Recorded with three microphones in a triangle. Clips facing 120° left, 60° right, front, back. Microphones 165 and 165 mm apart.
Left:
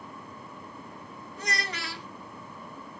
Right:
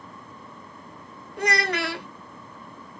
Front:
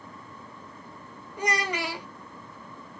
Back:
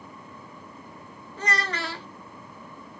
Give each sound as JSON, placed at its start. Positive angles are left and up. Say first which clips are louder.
{"t": 1.4, "sound": "a child speaking", "louder": "right 11 dB, front 2 dB", "azimuth_deg": -75, "distance_m": 0.5}